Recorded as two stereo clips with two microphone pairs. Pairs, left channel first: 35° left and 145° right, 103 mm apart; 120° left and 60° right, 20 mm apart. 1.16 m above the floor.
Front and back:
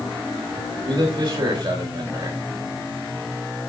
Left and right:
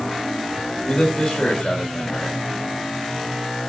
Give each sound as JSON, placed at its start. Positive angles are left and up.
{"t": 0.9, "sound": "a man speaking", "azimuth_deg": 175, "distance_m": 4.0}